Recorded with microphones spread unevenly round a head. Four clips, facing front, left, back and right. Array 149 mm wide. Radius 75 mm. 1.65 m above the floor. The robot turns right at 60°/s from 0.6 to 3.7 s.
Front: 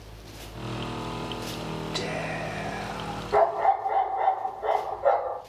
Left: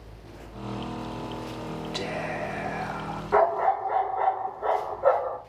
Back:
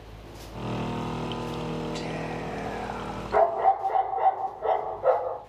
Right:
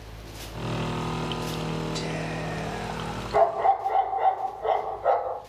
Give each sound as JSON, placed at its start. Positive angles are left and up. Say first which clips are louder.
{"t": 1.9, "sound": "whispering", "louder": "even, front 1 dB", "azimuth_deg": 25, "distance_m": 3.0}
{"t": 3.3, "sound": "a dog barking", "louder": "right 1 dB, even", "azimuth_deg": 85, "distance_m": 5.0}